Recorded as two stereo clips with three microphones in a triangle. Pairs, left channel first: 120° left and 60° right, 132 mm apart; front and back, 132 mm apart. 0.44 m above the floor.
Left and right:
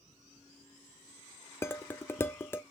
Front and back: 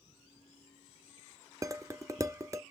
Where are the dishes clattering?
165° left, 0.5 m.